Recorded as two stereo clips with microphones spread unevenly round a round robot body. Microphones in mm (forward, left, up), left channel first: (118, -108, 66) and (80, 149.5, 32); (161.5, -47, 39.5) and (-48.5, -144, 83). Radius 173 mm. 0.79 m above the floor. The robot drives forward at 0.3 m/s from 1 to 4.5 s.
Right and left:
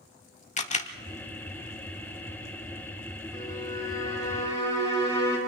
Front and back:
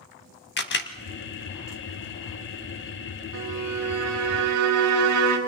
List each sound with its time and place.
0.6 s a camera shutter: 20° right, 1.6 m
3.3 s a violin: 160° right, 2.5 m; by 5.4 s 165° right, 2.5 m